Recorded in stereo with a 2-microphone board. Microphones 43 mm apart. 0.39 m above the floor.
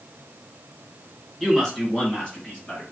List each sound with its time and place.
1.4 s a man speaking: 10° left (ahead or behind), 2.5 m; by 2.8 s 30° left (ahead or behind), 3 m